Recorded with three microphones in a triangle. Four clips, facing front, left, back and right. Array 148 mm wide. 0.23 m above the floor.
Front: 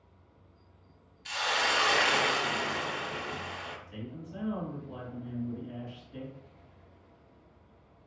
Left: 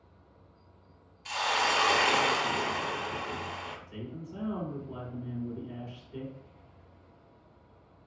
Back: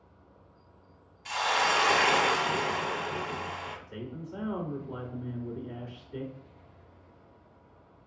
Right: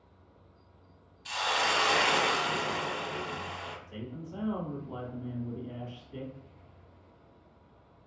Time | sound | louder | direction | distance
1.2 | a hiss | left 1 dB, back 4 dB | 155° left | 0.7 m
3.9 | a man speaking | even, back 2 dB | 145° right | 1.3 m